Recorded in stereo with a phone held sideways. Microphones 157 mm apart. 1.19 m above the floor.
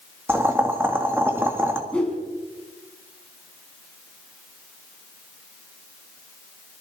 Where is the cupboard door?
No cupboard door in this recording.